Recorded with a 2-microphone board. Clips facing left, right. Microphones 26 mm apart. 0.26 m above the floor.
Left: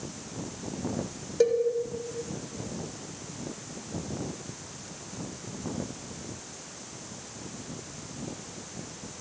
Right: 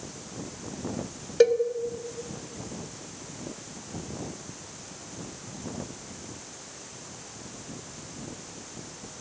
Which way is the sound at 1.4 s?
40° right (ahead or behind).